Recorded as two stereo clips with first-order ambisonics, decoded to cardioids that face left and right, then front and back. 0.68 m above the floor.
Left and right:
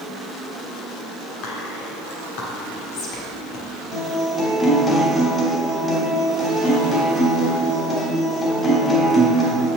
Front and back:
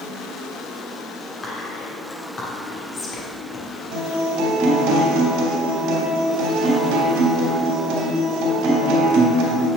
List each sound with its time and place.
1.4 s whispering: 70° left, 1.4 m
3.9 s a guitar: 160° left, 3 m